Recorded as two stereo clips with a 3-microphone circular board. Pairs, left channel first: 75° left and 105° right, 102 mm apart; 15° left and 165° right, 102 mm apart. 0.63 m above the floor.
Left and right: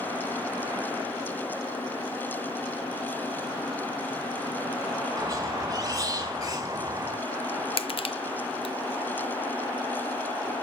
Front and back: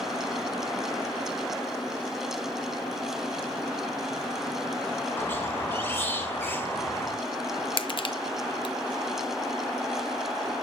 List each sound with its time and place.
5.2 s a squeak: 50° right, 1.5 m
7.8 s crushing: 50° left, 0.6 m